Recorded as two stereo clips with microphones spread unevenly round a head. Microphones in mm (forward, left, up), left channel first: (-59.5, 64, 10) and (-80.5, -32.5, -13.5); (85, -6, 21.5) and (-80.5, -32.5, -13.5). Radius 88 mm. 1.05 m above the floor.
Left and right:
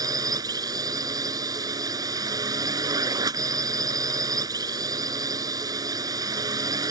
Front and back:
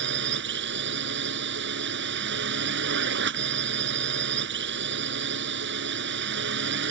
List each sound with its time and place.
0.0 s a drone: 155° right